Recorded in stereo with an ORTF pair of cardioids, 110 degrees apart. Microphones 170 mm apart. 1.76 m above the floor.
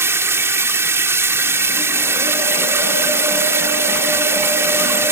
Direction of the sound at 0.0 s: 15° right.